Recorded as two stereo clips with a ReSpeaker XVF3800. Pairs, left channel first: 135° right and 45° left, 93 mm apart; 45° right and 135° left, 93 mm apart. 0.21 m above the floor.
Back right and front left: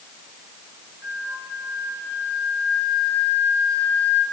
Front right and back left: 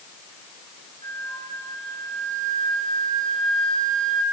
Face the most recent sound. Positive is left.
turn(degrees=-20)